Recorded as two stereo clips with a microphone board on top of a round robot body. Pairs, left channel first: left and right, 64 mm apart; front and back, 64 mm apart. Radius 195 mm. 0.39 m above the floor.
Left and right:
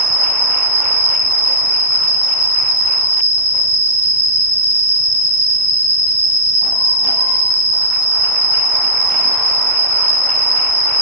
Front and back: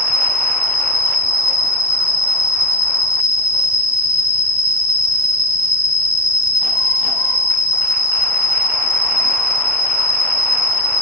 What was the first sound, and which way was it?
An insect, 40° left.